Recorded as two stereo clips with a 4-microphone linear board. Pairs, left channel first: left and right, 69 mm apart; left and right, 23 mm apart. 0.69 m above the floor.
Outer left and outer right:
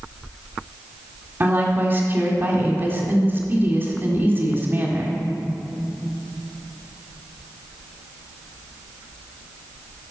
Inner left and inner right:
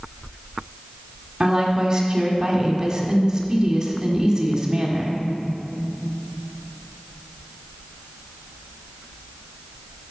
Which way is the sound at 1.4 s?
30° right (ahead or behind).